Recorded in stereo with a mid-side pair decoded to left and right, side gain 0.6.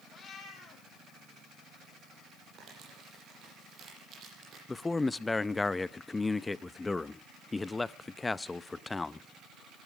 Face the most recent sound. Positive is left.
turn(degrees=15)